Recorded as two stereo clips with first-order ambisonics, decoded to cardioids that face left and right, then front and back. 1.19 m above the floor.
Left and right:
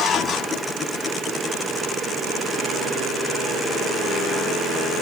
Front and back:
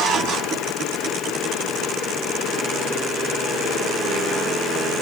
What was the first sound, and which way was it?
Only background noise.